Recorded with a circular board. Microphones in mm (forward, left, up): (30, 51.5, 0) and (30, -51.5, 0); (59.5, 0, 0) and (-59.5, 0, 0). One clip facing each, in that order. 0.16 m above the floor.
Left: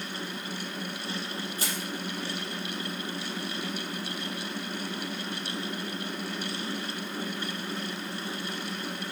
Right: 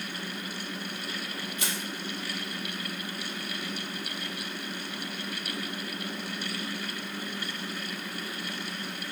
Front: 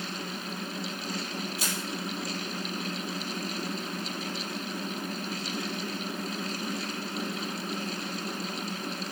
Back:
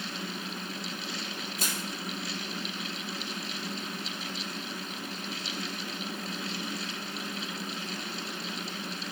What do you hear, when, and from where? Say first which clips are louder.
1.6 s crushing: left 1 dB, front 1 dB; 140° left, 3.5 m